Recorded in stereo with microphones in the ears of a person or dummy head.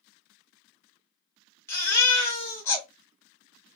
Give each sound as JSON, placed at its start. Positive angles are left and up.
{"t": 1.7, "sound": "a baby crying", "side_deg": 10, "distance_m": 1.1}